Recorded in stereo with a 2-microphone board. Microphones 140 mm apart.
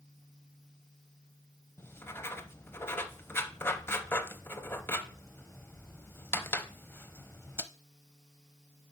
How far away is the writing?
About 0.6 m.